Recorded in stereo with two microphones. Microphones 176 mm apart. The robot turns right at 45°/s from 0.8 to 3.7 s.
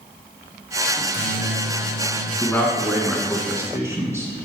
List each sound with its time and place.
1.0 s a microwave: 80° left, 1.3 m; by 2.3 s 140° left, 1.3 m
2.4 s a man speaking: 15° left (ahead or behind), 1.5 m; by 4.3 s 15° right (ahead or behind), 1.5 m